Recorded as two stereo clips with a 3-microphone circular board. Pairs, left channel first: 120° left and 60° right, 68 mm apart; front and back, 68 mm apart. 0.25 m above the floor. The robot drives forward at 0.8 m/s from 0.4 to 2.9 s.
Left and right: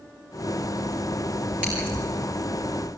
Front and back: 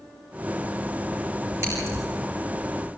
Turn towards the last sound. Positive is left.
turn(degrees=-135)